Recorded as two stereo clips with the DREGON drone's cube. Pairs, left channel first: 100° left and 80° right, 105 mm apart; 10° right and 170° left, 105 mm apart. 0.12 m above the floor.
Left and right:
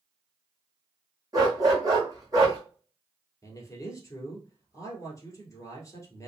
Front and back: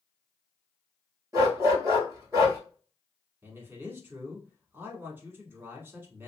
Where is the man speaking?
120° left, 1.2 m.